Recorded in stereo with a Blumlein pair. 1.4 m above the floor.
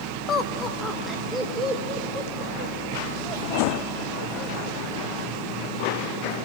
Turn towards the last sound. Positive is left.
turn(degrees=-30)